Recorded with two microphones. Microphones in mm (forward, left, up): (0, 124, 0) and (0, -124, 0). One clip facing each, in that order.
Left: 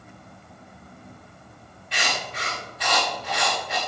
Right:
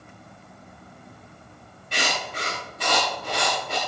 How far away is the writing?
About 7 m.